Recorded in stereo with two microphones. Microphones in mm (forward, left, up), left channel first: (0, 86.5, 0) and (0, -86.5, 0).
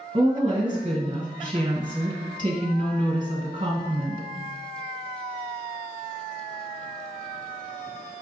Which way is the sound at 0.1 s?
30° right (ahead or behind).